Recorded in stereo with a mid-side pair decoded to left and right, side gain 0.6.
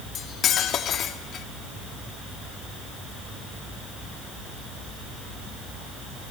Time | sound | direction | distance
0.1 | cutlery clinking | 50° left | 2 m